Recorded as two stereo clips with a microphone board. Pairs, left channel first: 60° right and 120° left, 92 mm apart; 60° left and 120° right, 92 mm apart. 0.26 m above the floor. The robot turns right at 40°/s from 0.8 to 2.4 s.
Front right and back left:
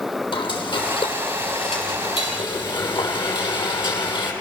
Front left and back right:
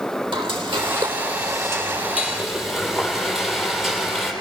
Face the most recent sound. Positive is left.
turn(degrees=-30)